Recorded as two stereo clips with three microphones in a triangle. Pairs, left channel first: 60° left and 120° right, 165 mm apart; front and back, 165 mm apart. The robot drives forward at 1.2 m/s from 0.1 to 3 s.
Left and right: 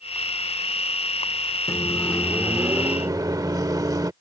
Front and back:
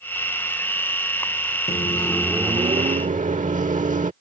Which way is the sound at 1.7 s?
Straight ahead.